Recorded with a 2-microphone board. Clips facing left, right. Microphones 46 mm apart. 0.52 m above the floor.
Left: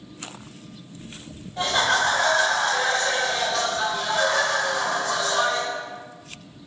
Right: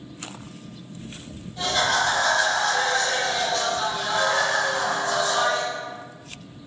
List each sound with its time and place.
1.6 s laughter: 40° left (ahead or behind), 1.7 m; by 5.7 s 45° right (ahead or behind), 1.5 m